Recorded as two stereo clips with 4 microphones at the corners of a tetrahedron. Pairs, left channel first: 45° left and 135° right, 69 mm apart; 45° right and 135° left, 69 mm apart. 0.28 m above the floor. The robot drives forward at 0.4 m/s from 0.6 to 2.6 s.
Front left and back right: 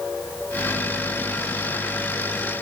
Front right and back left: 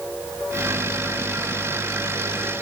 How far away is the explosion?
I don't hear an explosion.